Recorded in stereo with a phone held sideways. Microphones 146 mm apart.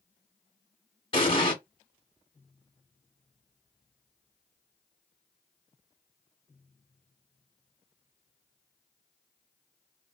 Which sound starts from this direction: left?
An explosion, at 1.1 s.